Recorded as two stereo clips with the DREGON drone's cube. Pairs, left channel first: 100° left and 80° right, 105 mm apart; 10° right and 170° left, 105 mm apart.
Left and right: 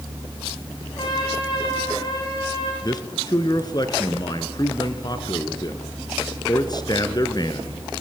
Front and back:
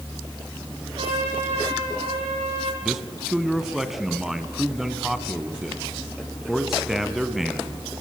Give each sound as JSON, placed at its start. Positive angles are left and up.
{"t": 1.0, "sound": "a trumpet", "azimuth_deg": 145, "distance_m": 9.5}
{"t": 2.8, "sound": "a man speaking", "azimuth_deg": 80, "distance_m": 1.9}